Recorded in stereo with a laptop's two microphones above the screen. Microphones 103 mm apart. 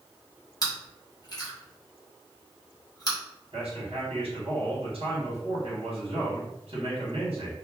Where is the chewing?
40° left (ahead or behind), 0.8 m.